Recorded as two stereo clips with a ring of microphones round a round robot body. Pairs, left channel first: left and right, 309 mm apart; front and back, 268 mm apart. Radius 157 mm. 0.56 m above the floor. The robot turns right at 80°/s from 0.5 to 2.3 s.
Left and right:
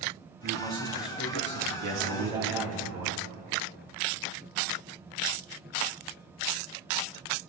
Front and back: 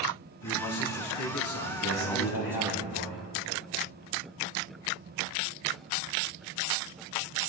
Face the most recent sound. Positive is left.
turn(degrees=-15)